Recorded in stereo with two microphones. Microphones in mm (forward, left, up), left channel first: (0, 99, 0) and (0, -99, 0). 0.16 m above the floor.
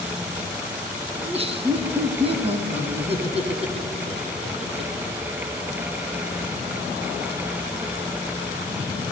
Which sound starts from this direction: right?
Laughter, at 1.2 s.